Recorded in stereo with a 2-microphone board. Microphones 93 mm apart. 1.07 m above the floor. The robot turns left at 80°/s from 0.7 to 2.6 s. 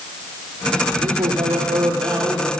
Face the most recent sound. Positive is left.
turn(degrees=175)